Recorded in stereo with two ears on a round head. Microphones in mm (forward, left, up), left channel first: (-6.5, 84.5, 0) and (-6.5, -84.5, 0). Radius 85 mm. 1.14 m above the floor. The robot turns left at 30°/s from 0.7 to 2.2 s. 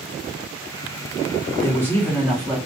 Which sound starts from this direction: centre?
A man speaking, at 1.6 s.